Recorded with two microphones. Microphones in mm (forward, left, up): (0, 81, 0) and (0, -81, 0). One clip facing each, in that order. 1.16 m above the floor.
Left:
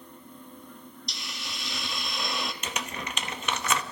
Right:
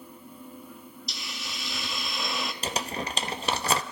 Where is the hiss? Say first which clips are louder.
Right 1 dB; centre (ahead or behind), 0.6 m.